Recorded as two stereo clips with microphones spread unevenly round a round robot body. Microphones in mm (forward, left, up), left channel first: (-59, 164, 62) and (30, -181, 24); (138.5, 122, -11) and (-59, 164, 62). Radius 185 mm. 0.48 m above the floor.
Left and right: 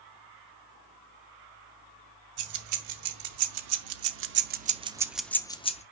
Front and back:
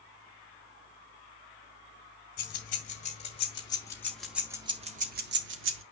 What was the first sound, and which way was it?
Keys jangling, 45° right.